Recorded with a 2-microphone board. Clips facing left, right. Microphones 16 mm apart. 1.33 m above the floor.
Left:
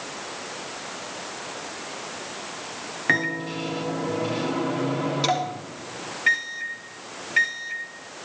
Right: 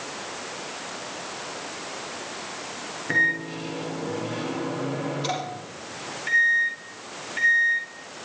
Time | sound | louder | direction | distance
3.1 | a microwave | right 1 dB | 60° left (ahead or behind) | 3 m